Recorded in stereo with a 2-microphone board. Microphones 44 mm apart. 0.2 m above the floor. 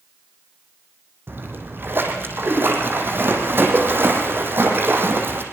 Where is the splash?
55° right (ahead or behind), 6 m.